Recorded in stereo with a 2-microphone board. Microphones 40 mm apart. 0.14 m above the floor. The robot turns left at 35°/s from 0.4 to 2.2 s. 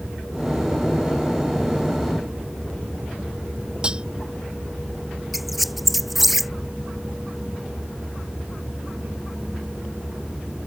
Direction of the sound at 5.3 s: Centre (ahead or behind).